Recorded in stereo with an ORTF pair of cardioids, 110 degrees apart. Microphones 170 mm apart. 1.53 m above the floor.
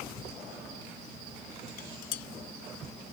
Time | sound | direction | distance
1.7 | dishes clattering | 65° left | ?